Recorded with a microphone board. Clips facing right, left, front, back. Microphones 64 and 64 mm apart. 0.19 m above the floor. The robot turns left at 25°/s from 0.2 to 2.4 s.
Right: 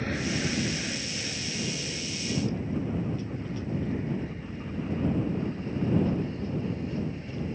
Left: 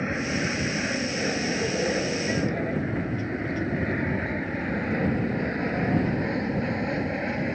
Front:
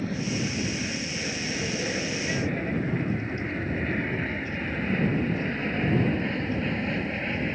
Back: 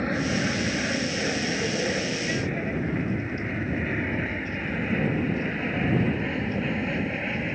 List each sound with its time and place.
0.0 s an aircraft: 150° left; by 7.6 s 95° left